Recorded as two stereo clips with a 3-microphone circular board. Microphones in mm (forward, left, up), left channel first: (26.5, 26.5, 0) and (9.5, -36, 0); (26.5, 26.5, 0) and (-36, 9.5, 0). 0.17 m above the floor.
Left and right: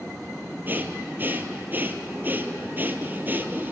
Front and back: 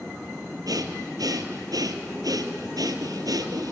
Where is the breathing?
165° right, 1.5 m.